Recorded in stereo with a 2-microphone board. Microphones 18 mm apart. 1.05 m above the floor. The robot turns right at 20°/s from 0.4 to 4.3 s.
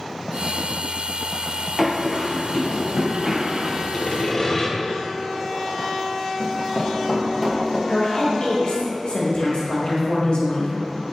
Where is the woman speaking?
50° left (ahead or behind), 1.1 m.